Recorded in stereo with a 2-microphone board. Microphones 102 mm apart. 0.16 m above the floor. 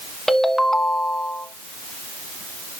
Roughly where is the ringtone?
Centre.